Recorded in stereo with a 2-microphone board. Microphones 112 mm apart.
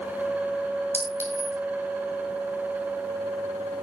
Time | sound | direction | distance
0.9 | a clink | 20° right (ahead or behind) | 5 m